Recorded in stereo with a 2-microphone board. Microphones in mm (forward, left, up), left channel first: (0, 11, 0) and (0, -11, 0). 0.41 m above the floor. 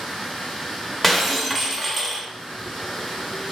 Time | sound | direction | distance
0.0 | running water | 20° left (ahead or behind) | 2 m
1.0 | breaking glass | 10° left (ahead or behind) | 0.6 m